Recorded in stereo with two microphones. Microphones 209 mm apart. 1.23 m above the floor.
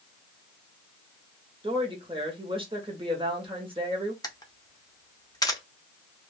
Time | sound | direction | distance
1.6 | a woman speaking | 25° right (ahead or behind) | 1.0 m
4.2 | a camera shutter | 15° left (ahead or behind) | 0.6 m